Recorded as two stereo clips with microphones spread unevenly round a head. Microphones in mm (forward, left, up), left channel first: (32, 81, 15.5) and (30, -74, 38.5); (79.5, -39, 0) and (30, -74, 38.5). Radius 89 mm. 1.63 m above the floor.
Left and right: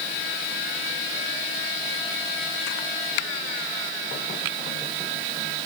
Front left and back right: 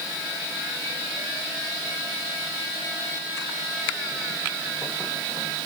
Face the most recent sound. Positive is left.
No sound to turn to.